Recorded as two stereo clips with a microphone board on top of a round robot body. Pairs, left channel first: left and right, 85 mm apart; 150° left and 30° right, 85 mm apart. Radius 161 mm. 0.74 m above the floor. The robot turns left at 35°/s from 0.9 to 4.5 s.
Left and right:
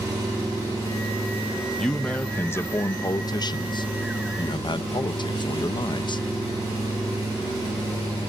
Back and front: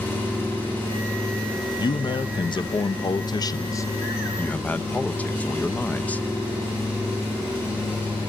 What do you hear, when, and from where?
0.0 s an engine running: 145° right, 8.5 m; by 8.3 s 90° left, 8.5 m
1.8 s a man speaking: 175° left, 0.6 m; by 6.2 s 80° left, 0.6 m